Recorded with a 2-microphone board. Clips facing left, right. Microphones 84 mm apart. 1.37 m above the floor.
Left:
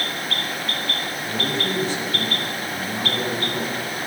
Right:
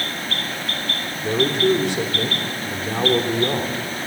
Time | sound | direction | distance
1.2 | a man speaking | 75° right (ahead or behind) | 3 m